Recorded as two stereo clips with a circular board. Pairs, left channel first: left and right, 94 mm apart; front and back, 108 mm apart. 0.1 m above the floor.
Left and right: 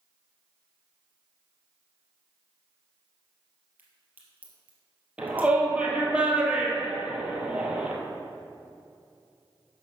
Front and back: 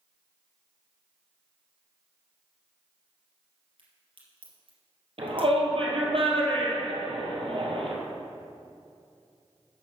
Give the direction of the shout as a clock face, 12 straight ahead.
6 o'clock.